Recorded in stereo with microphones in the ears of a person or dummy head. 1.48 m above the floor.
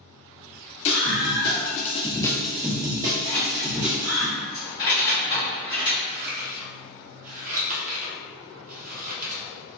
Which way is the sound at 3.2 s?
45° left (ahead or behind).